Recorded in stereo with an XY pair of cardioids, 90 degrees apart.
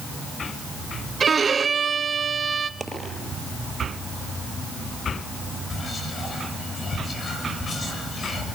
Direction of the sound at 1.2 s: 45° right.